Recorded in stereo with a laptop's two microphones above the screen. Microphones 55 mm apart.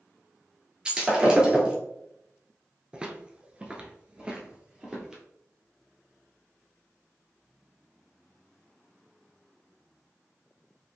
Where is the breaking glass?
15° right (ahead or behind), 1.3 m.